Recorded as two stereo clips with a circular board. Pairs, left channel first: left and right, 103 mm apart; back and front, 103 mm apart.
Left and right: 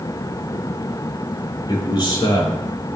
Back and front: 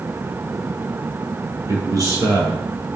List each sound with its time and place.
1.7 s a man speaking: 50° left, 4.5 m